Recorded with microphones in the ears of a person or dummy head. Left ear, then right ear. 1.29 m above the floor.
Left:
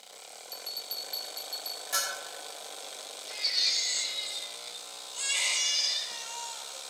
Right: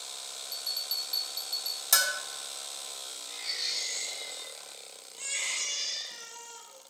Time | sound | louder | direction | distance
0.5 | a bell | right 4 dB | centre (ahead or behind) | 0.7 m
1.9 | a bell | right 5 dB | 40° right (ahead or behind) | 2.5 m
3.3 | a baby crying | left 6 dB | 55° left (ahead or behind) | 4 m